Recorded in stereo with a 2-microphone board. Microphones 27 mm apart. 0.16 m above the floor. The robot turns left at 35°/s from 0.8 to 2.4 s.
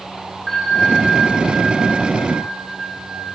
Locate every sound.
0.5 s a bell: 10° left, 7.5 m; by 3.3 s 50° right, 7.5 m